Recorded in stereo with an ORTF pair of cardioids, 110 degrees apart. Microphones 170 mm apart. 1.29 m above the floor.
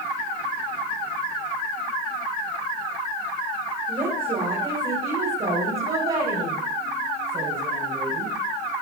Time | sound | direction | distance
3.9 | a woman speaking | 30° right | 4 m